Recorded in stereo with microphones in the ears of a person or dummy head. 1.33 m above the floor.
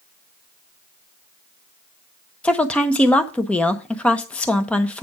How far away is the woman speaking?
About 0.9 m.